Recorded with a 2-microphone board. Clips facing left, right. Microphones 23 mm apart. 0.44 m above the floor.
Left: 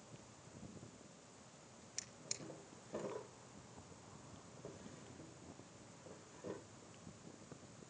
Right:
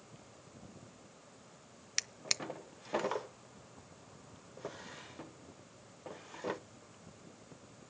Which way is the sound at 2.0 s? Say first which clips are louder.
Right 14 dB; 60° right (ahead or behind).